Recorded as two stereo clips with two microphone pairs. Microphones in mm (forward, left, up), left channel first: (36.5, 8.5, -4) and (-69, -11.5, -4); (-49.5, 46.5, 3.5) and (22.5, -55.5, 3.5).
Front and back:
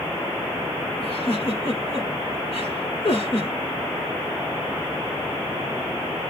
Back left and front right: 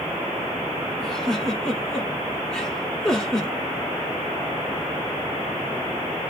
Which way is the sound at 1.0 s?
40° left.